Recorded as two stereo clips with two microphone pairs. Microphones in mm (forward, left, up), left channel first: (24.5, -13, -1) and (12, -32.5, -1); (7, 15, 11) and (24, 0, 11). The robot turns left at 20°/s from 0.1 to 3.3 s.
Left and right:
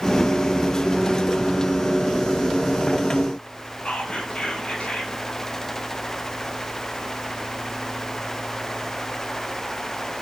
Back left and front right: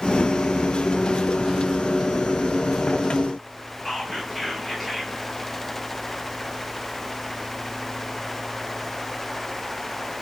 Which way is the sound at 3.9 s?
55° left.